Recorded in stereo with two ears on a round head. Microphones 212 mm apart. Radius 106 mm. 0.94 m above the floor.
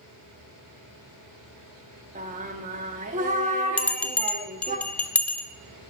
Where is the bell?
5° left (ahead or behind), 0.5 m.